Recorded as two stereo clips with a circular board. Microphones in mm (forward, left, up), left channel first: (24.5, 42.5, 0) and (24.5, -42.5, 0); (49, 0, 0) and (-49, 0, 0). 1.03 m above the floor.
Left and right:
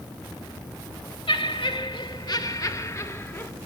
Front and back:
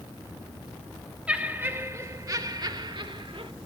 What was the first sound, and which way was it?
Laughter, 100° left.